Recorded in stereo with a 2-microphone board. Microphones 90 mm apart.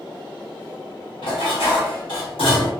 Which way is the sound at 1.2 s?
75° left (ahead or behind).